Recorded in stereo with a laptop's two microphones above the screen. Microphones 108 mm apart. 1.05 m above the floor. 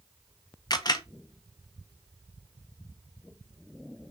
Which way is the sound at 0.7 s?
40° left (ahead or behind).